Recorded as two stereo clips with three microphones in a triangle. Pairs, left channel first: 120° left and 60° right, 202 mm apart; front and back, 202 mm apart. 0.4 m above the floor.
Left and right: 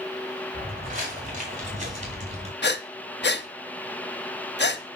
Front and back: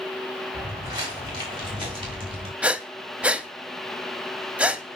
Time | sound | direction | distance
0.5 | footsteps | 105° right | 5 m
2.6 | breathing | 95° left | 0.6 m